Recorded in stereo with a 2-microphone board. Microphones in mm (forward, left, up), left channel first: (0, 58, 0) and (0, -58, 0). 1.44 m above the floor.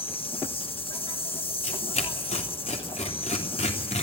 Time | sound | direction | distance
0.0 | an insect | 50° left (ahead or behind) | 1.3 m
1.6 | tearing paper | 75° left (ahead or behind) | 3 m